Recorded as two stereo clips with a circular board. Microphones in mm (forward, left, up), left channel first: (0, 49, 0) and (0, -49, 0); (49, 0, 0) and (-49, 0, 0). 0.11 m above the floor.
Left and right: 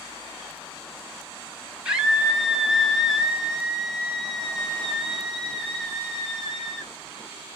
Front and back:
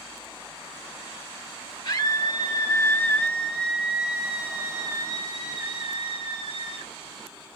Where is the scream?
10° right, 2.5 m; by 6.9 s 175° left, 3 m.